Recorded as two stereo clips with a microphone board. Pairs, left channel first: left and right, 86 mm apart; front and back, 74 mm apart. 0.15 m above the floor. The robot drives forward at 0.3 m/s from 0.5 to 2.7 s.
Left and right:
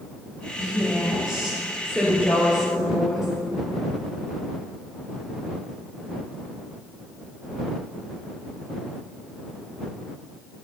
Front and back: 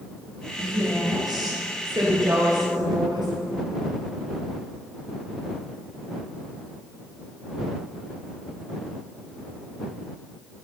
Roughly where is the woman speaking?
Behind.